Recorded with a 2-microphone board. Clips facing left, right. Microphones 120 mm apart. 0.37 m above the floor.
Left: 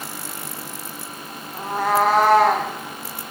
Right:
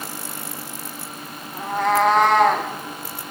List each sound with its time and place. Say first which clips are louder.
1.5 s a cat meowing: even; 10° left (ahead or behind), 7 m; by 2.7 s 5° left (ahead or behind), 6.5 m